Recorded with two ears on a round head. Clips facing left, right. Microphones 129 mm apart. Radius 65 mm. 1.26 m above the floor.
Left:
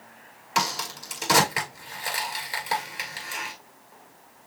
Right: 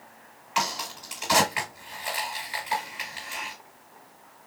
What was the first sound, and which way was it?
A crack, 50° left (ahead or behind).